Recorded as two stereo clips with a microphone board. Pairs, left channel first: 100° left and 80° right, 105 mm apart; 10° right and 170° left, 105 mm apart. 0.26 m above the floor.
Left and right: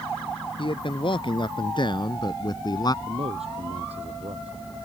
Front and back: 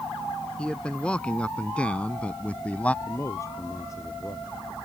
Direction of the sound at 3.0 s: 70° right.